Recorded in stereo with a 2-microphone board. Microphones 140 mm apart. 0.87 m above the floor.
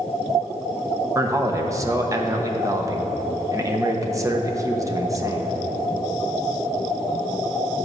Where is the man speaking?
25° right (ahead or behind), 1.0 m.